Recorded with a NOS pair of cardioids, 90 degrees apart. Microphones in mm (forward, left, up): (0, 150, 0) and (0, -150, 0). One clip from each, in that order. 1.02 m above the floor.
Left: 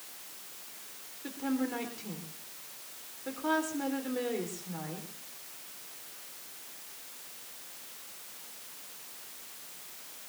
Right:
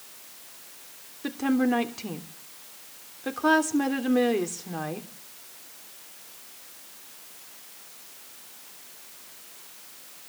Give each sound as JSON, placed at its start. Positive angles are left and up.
{"t": 1.2, "sound": "a woman speaking", "azimuth_deg": -65, "distance_m": 3.0}